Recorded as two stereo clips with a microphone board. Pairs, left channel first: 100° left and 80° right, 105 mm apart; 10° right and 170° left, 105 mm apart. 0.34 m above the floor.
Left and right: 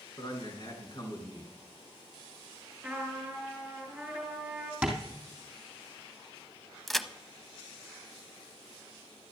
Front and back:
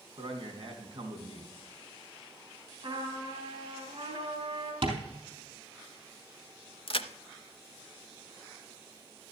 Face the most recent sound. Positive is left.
turn(degrees=10)